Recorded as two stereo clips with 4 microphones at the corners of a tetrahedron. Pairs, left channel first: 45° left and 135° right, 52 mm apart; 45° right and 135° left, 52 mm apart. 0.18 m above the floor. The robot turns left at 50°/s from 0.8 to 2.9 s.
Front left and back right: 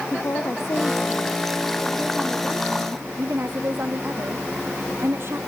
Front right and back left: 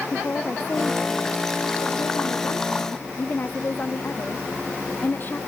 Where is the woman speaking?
10° left; by 5.4 s 95° right.